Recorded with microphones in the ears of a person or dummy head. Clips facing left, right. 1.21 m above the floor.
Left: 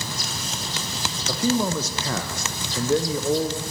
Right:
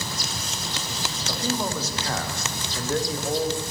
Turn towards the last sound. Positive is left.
turn(degrees=85)